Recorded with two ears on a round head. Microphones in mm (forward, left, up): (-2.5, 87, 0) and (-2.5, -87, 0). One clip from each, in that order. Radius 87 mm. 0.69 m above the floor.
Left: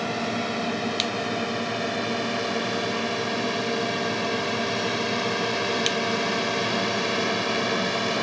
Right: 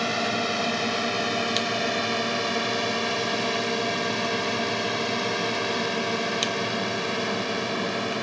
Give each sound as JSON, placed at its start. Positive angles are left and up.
{"t": 0.0, "sound": "a drone", "side_deg": -35}